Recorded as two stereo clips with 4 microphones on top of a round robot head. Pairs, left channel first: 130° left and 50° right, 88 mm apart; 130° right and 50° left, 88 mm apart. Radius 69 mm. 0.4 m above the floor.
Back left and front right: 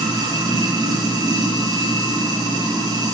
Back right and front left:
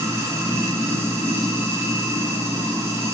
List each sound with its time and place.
0.0 s running water: 10° right, 3 m